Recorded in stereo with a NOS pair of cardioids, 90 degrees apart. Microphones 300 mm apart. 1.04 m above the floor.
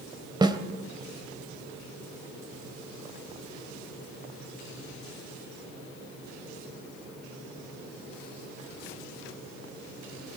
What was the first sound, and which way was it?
A snare drum, 15° right.